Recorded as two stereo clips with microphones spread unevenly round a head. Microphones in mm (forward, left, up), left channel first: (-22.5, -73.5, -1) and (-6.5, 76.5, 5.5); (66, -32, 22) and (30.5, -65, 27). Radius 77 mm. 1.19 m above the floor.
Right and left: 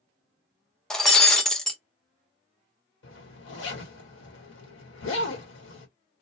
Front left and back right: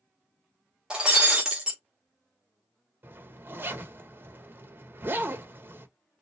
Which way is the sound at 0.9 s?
175° left.